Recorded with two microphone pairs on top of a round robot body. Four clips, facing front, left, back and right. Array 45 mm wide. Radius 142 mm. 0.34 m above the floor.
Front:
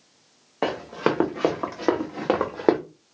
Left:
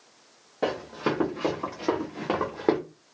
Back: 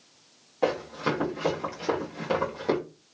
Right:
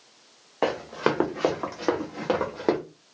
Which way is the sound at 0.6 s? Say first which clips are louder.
Right 3 dB, front 3 dB; 55° right.